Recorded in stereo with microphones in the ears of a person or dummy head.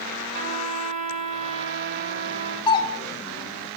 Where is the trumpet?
40° right (ahead or behind), 6 m.